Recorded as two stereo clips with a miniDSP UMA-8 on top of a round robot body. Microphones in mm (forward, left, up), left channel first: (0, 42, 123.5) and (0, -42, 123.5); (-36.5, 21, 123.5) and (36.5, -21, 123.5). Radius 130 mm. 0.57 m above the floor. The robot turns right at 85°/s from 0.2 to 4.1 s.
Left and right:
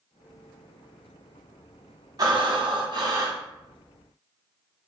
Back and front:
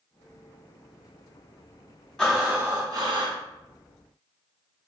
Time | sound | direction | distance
2.2 | breathing | 130° right | 0.9 m